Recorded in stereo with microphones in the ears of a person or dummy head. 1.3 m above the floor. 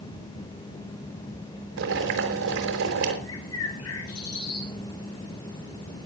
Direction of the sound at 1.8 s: 70° right (ahead or behind).